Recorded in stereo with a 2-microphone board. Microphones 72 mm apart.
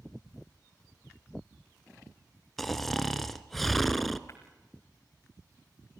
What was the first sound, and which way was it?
Snoring, 5° left (ahead or behind).